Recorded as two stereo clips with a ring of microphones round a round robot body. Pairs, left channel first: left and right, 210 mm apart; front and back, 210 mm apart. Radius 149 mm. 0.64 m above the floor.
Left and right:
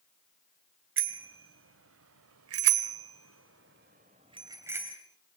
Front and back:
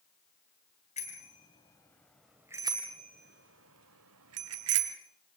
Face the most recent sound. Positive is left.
turn(degrees=-175)